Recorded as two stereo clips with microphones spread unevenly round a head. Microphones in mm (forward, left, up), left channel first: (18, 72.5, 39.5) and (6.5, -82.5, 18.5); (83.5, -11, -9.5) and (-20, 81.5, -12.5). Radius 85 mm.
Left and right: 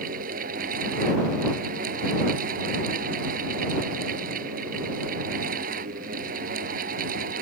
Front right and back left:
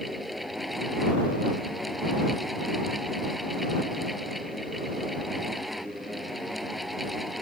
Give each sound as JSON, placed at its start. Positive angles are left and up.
{"t": 0.0, "sound": "a fan", "azimuth_deg": -130}